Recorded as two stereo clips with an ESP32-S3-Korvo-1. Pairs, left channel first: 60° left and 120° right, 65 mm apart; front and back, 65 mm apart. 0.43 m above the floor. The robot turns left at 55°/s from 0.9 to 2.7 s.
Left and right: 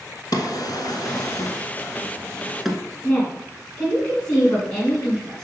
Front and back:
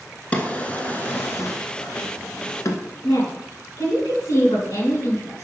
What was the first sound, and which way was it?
A drawer, 70° left.